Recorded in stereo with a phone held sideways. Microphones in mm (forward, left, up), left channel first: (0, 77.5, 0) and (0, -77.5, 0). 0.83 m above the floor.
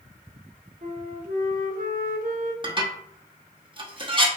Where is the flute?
65° right (ahead or behind), 0.8 m.